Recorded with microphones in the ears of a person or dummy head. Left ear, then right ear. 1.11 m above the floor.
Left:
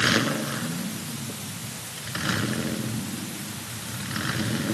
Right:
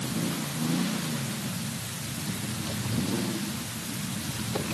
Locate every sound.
Only background noise.